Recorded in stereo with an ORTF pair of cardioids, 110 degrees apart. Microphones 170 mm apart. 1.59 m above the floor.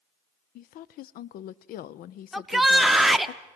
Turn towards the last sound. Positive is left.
turn(degrees=0)